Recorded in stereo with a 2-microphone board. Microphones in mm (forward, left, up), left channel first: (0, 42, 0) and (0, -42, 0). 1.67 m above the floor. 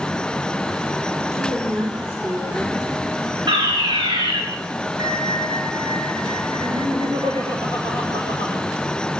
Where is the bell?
50° right (ahead or behind), 1.9 m.